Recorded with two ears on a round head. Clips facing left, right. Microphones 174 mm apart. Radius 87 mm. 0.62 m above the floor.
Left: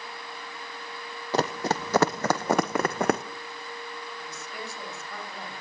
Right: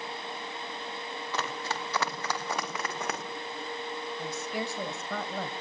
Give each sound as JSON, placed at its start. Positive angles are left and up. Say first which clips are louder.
{"t": 1.3, "sound": "running footsteps", "louder": "left 10 dB", "side_deg": 35, "distance_m": 1.6}
{"t": 4.2, "sound": "a woman speaking", "louder": "right 6 dB", "side_deg": -65, "distance_m": 3.0}